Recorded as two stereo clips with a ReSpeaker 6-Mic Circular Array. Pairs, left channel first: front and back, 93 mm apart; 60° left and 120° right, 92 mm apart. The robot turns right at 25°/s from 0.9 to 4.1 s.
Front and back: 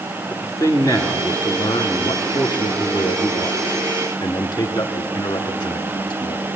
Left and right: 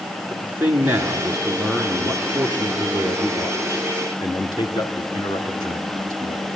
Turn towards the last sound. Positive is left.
turn(degrees=25)